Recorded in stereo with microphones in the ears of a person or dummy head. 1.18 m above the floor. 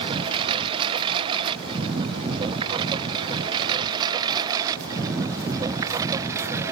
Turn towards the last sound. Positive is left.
turn(degrees=-15)  # may be behind; listen again after turning